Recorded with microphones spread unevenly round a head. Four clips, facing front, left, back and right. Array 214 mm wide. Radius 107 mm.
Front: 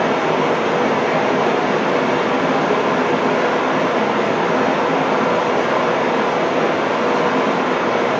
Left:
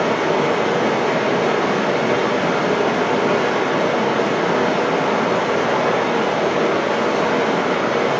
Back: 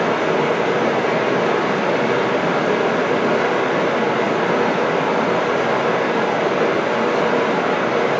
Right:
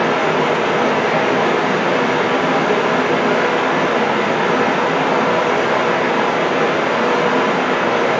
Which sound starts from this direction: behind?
Running water, at 0.0 s.